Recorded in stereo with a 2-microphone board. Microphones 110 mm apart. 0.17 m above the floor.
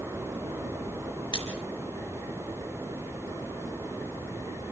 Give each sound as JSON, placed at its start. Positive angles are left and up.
{"t": 1.3, "sound": "a splash", "side_deg": 50, "distance_m": 3.0}